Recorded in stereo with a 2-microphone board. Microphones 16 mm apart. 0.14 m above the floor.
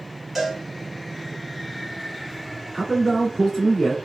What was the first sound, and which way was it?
A cowbell, 15° right (ahead or behind).